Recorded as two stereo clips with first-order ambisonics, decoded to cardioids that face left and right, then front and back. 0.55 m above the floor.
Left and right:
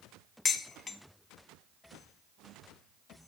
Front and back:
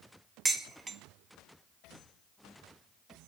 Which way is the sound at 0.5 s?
120° left.